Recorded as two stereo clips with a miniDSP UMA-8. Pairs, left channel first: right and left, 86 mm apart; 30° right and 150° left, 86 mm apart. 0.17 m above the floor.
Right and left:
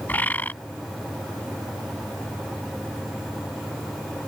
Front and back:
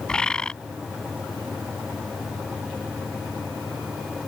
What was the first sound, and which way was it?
A bird, 90° right.